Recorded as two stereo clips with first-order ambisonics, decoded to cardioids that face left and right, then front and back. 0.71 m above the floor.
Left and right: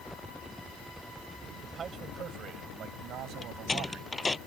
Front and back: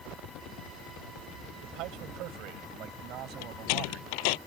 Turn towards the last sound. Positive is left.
turn(degrees=10)